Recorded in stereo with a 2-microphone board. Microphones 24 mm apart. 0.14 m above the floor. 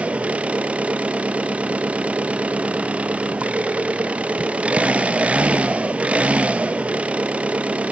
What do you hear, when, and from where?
0.0 s an engine running: 70° right (ahead or behind), 0.8 m